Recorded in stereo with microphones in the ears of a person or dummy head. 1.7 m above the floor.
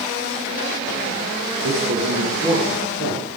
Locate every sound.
1.6 s a man speaking: 60° right (ahead or behind), 2.0 m; by 3.3 s 45° right (ahead or behind), 4 m